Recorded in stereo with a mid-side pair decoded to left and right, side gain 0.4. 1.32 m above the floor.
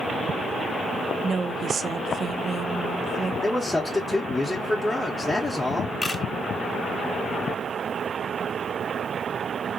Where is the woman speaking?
55° right, 0.5 m.